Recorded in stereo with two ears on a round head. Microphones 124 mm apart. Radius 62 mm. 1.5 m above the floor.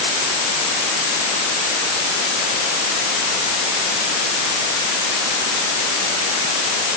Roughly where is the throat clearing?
No throat clearing in this recording.